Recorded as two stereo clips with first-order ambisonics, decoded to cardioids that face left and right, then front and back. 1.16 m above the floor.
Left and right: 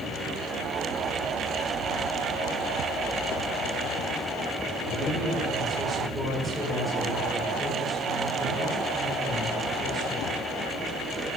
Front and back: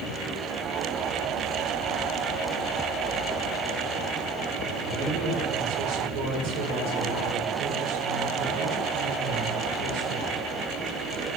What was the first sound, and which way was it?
A man speaking, 155° right.